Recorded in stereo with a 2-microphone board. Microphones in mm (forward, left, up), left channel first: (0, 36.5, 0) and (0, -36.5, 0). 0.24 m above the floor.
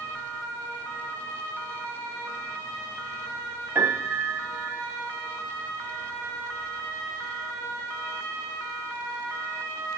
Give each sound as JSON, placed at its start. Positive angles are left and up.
{"t": 3.8, "sound": "a piano", "side_deg": -30, "distance_m": 0.8}